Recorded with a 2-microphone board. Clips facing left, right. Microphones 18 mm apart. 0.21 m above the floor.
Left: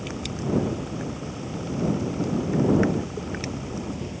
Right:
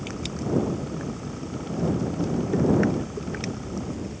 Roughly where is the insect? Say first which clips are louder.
Left 1 dB; left.